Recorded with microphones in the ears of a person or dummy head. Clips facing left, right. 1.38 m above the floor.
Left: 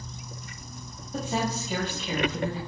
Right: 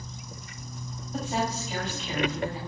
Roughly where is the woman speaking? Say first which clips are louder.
Left 1 dB; left.